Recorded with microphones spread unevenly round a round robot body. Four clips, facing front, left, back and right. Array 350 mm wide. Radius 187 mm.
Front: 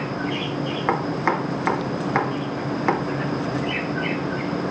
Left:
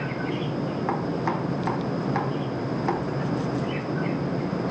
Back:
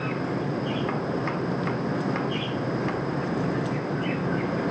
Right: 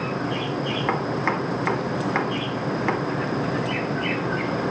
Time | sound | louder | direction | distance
0.9 | chopping | right 3 dB, front 5 dB | 25° right | 1.3 m